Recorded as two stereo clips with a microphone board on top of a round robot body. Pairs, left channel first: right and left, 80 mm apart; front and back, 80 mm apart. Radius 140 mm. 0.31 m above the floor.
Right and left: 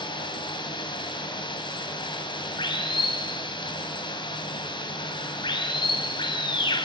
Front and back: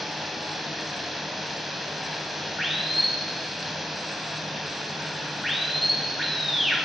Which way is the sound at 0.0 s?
90° right.